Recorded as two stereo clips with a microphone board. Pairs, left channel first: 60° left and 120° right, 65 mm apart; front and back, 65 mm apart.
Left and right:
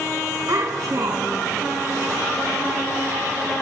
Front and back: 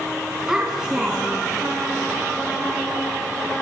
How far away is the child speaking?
About 2.5 m.